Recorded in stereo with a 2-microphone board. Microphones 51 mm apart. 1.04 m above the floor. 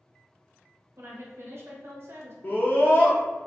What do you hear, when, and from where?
1.0 s a woman speaking: 55° right (ahead or behind), 0.9 m
2.4 s a scream: 40° left (ahead or behind), 0.5 m